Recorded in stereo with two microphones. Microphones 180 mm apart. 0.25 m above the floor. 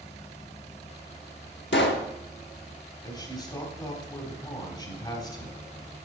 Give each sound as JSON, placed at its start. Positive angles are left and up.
{"t": 1.7, "sound": "a pop", "side_deg": 80, "distance_m": 0.7}
{"t": 3.0, "sound": "a man speaking", "side_deg": 20, "distance_m": 1.4}